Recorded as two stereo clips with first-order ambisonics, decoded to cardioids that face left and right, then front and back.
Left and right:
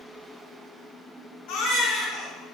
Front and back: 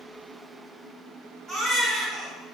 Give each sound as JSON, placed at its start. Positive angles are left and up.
{"t": 1.5, "sound": "a baby crying", "azimuth_deg": 105, "distance_m": 1.3}